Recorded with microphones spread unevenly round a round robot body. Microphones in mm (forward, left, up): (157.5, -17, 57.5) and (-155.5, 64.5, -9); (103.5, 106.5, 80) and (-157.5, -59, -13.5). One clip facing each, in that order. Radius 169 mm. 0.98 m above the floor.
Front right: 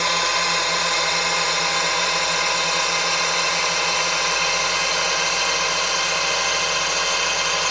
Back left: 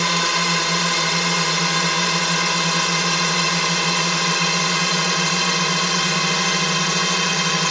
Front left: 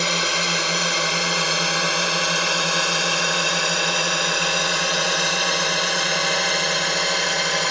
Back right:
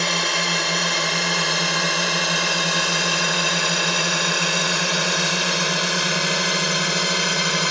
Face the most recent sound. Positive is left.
turn(degrees=165)